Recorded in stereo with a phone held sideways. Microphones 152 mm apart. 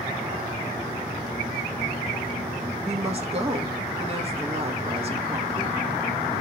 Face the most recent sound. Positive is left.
turn(degrees=-40)  # may be behind; listen again after turning